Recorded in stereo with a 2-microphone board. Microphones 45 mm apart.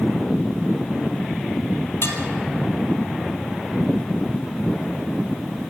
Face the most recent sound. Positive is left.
turn(degrees=75)  # may be behind; listen again after turning